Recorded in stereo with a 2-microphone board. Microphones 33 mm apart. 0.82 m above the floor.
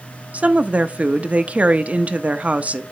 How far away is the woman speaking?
About 0.5 m.